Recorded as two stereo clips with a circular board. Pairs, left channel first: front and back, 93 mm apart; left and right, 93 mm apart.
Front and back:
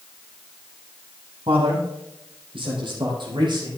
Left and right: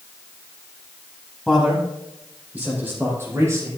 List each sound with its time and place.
1.5 s a man speaking: 175° right, 5.5 m; by 3.7 s 145° right, 5 m